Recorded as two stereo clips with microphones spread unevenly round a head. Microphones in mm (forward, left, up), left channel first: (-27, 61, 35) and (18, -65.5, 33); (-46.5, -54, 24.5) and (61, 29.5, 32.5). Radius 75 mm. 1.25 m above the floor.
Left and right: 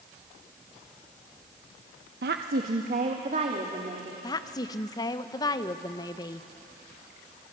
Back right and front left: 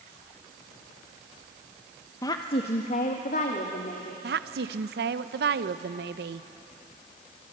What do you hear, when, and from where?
2.2 s a woman speaking: 75° right, 0.8 m; by 4.1 s 120° right, 3 m
4.2 s a woman speaking: 45° left, 0.8 m